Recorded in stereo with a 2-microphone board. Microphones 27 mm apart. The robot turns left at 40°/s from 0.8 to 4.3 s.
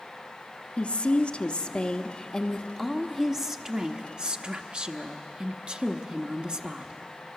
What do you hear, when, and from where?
0.8 s a woman speaking: 80° left, 1.0 m; by 7.0 s 60° right, 1.0 m